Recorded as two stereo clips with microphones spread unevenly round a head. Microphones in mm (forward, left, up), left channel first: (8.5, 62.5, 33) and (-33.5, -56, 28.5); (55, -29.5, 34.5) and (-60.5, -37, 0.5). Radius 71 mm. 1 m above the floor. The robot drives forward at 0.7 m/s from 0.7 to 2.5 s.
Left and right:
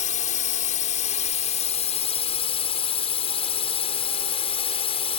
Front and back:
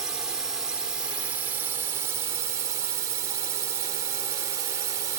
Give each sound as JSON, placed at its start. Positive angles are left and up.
{"t": 0.0, "sound": "a drone", "azimuth_deg": 105}